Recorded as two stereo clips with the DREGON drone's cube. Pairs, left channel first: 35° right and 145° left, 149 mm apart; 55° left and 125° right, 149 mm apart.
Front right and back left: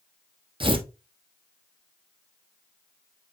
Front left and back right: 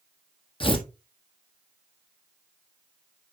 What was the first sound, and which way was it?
Tearing paper, 100° left.